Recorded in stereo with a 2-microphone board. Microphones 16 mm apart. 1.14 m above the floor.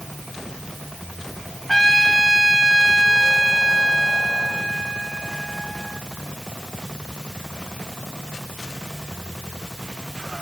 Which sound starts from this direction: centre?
A trumpet, at 1.7 s.